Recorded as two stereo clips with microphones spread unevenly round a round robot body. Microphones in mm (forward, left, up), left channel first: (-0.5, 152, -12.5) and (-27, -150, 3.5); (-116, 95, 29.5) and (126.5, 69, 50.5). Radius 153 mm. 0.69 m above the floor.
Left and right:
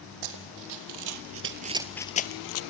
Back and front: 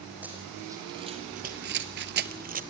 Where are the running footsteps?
90° right, 2 m; by 2.6 s 45° left, 1.2 m.